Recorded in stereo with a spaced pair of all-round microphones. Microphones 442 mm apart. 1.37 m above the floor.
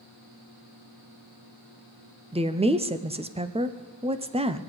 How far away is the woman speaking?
About 0.5 m.